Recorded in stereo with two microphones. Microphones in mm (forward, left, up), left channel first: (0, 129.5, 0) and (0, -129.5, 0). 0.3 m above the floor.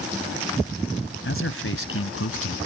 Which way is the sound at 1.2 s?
50° left (ahead or behind).